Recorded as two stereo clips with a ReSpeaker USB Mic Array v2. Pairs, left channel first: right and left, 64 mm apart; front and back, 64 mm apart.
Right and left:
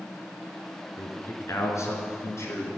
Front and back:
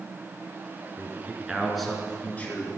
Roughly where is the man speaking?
Behind right.